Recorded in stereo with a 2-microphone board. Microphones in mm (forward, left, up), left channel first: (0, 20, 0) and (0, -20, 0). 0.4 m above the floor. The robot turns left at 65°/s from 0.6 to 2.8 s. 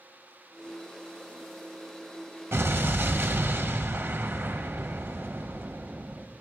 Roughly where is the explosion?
Right.